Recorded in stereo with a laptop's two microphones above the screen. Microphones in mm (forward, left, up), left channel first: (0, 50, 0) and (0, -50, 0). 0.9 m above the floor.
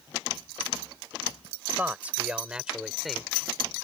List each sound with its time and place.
1.8 s a man speaking: 15° right (ahead or behind); by 3.3 s 5° left (ahead or behind)